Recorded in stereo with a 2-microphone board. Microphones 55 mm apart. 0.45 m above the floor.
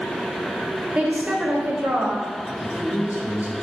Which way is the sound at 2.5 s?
65° left (ahead or behind).